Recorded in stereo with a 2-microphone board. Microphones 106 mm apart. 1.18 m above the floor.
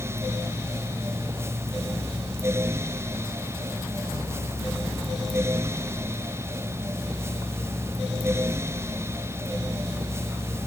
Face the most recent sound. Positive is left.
No sound to turn to.